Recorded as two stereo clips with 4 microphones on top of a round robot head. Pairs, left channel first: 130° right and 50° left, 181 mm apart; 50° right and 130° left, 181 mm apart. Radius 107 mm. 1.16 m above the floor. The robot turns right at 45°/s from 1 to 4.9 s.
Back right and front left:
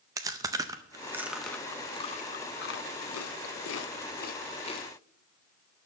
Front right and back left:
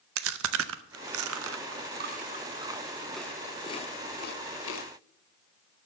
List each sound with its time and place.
0.2 s chewing: 125° left, 0.5 m; by 4.9 s 60° right, 0.5 m